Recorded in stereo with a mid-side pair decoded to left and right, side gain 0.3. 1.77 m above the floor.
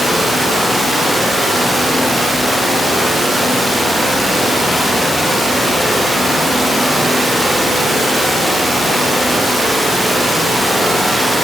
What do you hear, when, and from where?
Only background noise.